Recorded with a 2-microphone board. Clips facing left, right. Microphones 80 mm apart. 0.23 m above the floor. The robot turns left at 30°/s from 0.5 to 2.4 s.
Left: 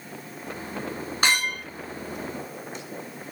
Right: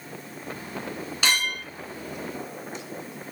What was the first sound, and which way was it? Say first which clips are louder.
A clink: left 2 dB; 45° left (ahead or behind).